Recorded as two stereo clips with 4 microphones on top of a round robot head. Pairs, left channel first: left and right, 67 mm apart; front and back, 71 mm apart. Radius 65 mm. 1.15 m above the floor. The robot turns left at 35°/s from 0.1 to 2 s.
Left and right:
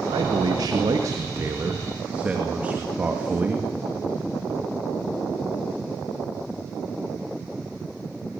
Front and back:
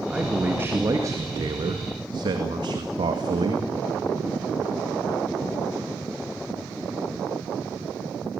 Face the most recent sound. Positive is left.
turn(degrees=-165)